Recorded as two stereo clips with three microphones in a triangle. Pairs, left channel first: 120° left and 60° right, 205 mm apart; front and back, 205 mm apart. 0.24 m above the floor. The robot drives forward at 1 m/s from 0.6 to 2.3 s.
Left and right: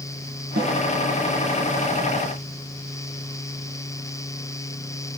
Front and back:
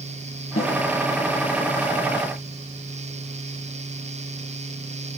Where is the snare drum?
35° right, 5 m.